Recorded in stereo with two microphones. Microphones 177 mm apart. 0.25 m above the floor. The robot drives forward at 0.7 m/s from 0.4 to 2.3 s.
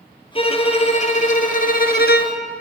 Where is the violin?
35° left (ahead or behind), 1.9 m; by 2.4 s 70° left (ahead or behind), 1.1 m.